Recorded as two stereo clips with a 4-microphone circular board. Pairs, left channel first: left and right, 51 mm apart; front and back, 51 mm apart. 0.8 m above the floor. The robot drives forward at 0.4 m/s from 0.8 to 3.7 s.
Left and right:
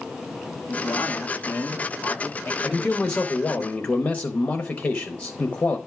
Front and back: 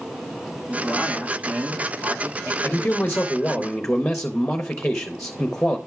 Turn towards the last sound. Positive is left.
turn(degrees=70)